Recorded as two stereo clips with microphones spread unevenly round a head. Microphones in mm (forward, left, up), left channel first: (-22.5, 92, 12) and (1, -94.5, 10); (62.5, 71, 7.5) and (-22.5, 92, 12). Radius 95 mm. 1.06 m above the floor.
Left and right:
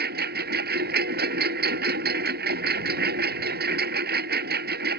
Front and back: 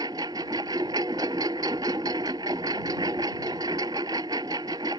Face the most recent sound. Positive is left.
turn(degrees=-120)